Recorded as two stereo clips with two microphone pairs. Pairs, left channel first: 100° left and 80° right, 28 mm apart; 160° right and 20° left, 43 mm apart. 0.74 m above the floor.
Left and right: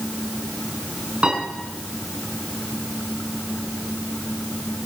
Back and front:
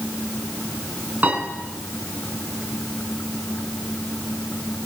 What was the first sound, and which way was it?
A piano, 35° right.